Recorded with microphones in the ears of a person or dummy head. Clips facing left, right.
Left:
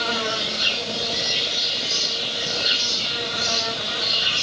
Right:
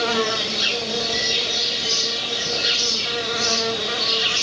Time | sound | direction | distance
0.0 | an insect | 65° right (ahead or behind) | 2 m